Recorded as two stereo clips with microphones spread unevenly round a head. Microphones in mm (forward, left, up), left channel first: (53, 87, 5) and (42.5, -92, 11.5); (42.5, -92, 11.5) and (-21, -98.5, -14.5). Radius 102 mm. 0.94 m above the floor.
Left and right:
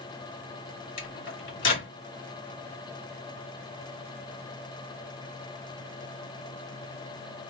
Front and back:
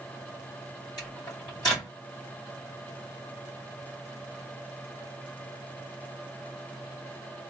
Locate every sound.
1.0 s a microwave: 80° left, 2 m